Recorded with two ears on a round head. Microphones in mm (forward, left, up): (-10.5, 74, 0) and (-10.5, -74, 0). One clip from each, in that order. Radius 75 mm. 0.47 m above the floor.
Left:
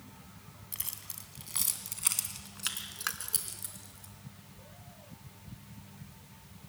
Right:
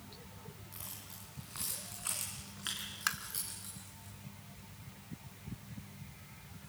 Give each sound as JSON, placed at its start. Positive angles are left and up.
{"t": 0.7, "sound": "keys jangling", "side_deg": 70, "distance_m": 2.5}
{"t": 3.1, "sound": "tapping", "side_deg": -5, "distance_m": 0.9}